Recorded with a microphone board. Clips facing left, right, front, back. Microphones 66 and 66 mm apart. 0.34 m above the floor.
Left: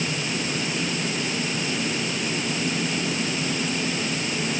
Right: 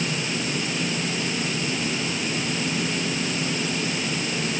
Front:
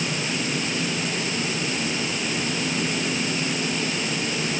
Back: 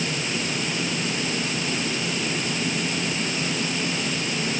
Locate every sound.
Only background noise.